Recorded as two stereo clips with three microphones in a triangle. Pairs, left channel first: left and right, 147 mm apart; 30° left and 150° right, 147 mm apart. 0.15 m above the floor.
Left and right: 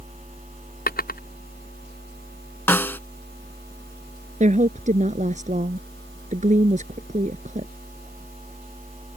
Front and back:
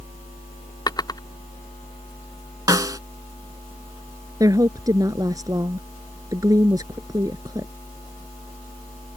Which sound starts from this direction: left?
A drawer, at 0.9 s.